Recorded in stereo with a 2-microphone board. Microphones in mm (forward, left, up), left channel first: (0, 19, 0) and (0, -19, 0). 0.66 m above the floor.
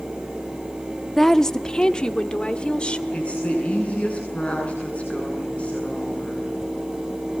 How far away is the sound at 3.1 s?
About 9 m.